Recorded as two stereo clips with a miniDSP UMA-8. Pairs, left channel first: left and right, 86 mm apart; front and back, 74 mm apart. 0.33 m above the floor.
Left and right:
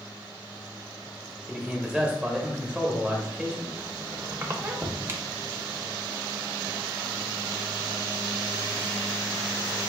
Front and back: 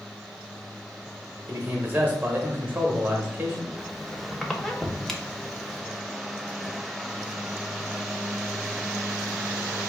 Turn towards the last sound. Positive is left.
turn(degrees=-85)